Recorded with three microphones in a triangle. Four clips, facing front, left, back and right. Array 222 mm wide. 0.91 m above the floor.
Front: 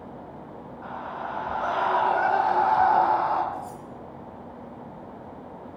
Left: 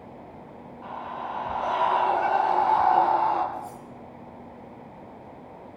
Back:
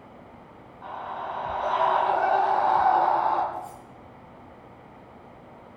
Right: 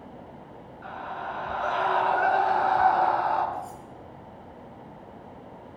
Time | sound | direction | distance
0.8 | a scream | 15° left | 8.5 m
3.5 | cutlery clinking | 20° right | 6.5 m